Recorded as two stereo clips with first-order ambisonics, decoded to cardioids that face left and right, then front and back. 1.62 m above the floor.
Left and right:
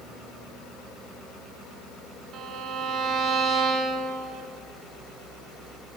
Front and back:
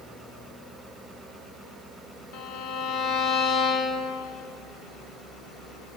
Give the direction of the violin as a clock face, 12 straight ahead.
12 o'clock.